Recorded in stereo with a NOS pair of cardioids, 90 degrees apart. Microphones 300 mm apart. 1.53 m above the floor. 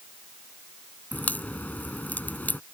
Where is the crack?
5° left.